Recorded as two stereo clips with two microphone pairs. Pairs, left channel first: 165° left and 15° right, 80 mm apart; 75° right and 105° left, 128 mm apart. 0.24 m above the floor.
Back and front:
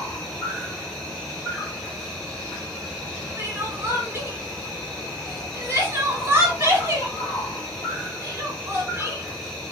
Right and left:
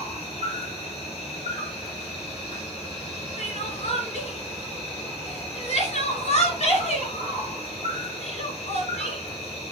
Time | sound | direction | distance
0.0 | an insect | 105° right | 2 m
3.4 | crying | 65° right | 1.6 m